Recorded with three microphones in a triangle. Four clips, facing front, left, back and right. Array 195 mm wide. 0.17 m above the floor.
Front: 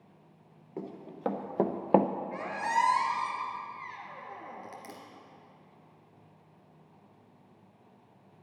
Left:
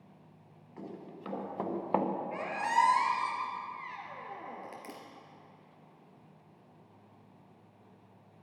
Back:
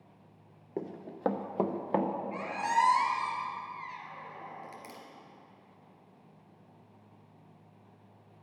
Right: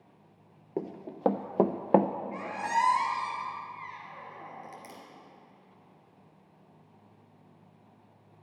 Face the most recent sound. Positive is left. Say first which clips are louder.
# left 1 dB, back 1 dB
turn(degrees=70)